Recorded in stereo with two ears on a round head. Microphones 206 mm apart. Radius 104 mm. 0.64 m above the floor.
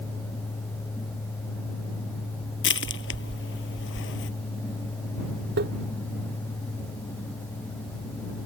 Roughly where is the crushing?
Left.